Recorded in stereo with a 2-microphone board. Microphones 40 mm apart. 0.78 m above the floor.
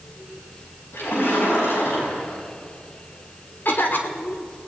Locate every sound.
0.9 s a splash: 80° left, 6 m
3.6 s a cough: 55° left (ahead or behind), 2 m